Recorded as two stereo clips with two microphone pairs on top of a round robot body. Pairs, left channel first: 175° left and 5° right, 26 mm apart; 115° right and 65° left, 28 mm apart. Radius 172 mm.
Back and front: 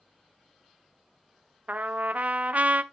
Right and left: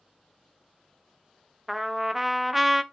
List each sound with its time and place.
1.7 s a trumpet: 20° right, 1.0 m